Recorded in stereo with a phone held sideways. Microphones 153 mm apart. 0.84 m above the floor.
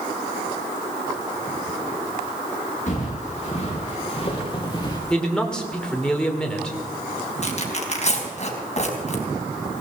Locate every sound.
2.9 s footsteps: 45° left (ahead or behind), 5 m; by 5.0 s 25° left (ahead or behind), 3.5 m
5.1 s a man speaking: 5° left (ahead or behind), 2.5 m
7.4 s tearing paper: 45° left (ahead or behind), 3 m